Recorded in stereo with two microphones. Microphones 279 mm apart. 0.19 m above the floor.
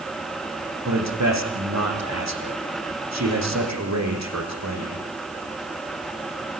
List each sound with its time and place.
0.8 s a man speaking: 80° right, 7.5 m